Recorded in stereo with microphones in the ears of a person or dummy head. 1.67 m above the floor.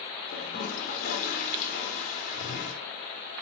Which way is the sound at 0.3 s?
50° left (ahead or behind).